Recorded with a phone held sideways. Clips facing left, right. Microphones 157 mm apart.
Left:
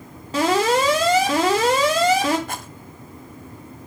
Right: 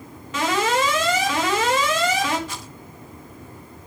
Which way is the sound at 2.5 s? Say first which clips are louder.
Left 4 dB; 55° left (ahead or behind).